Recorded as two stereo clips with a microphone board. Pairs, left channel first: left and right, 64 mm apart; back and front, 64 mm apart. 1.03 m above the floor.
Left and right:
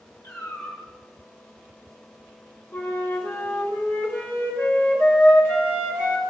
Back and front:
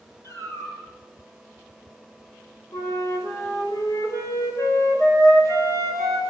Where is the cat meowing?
140° left, 9.5 m.